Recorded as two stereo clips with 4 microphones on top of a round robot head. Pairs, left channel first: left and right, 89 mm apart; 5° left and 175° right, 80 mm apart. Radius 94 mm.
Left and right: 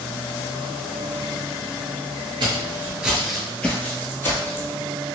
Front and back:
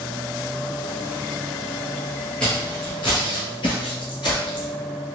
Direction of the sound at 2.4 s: 80° right.